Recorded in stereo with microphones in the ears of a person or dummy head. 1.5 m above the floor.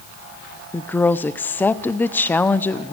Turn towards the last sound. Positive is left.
turn(degrees=10)  # may be behind; listen again after turning